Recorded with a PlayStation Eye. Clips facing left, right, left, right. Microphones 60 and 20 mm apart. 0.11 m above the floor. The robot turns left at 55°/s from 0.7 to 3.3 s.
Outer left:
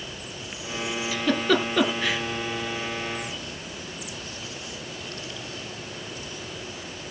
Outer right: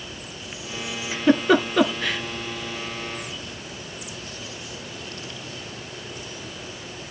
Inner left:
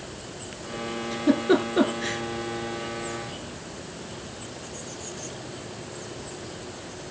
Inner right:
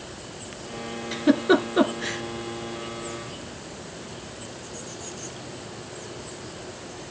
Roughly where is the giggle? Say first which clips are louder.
Outer right 5 dB, inner right 2 dB; right.